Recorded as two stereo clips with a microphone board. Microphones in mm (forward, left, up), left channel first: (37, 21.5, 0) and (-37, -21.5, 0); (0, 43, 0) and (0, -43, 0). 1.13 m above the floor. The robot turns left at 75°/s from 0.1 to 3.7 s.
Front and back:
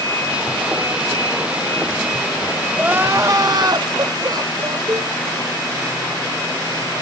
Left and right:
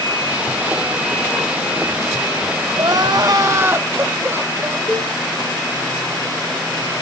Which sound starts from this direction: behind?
A cowbell, at 4.9 s.